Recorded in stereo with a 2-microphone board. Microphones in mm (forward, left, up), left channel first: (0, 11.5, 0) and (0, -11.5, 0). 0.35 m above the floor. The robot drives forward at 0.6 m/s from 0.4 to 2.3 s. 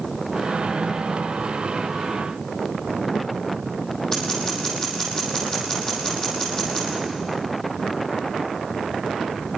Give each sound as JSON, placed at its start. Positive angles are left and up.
{"t": 4.1, "sound": "scissors", "side_deg": 25, "distance_m": 6.5}